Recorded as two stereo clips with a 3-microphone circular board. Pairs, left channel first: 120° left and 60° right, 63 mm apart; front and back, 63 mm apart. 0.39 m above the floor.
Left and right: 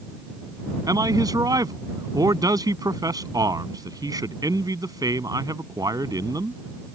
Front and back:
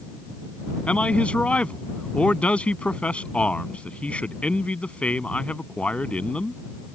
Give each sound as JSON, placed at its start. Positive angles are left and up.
{"t": 0.9, "sound": "a man speaking", "azimuth_deg": -70}